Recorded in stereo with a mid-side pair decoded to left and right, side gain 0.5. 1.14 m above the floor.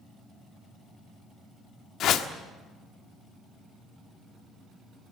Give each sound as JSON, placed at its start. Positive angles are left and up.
{"t": 2.0, "sound": "a whoosh", "azimuth_deg": 65, "distance_m": 1.3}